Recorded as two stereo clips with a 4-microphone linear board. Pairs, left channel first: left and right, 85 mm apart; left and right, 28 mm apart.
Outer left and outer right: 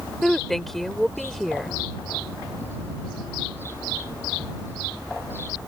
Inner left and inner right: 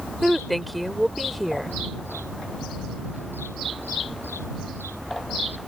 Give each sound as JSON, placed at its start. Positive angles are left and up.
{"t": 0.2, "sound": "a woman speaking", "side_deg": 5}